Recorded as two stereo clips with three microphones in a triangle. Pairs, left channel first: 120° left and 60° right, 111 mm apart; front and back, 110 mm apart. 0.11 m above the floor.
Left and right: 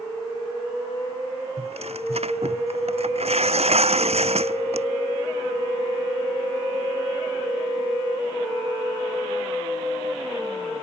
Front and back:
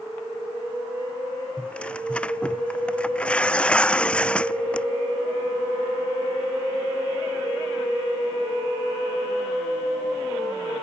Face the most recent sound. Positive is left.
turn(degrees=-80)